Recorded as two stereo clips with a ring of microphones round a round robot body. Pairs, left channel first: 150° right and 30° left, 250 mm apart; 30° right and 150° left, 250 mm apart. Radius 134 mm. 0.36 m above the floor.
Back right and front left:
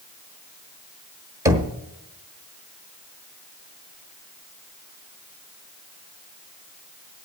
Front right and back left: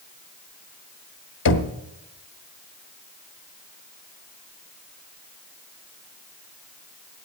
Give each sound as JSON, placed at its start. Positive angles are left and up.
{"t": 1.4, "sound": "knocking", "azimuth_deg": -45, "distance_m": 1.2}